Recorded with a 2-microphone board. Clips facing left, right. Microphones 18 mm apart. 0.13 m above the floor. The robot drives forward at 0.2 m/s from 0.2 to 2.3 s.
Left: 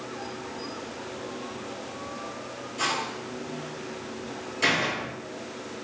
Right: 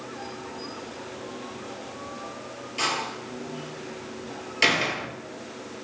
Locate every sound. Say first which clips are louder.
2.8 s a door slam: right 1 dB; 60° right (ahead or behind), 1.5 m